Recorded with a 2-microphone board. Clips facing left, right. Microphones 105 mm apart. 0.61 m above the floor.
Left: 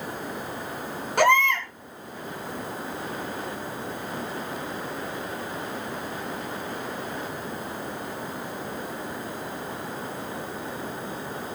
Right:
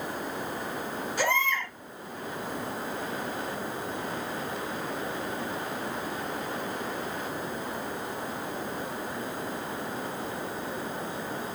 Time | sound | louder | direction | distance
1.2 | a baby crying | left 8 dB | 75° left (ahead or behind) | 5 m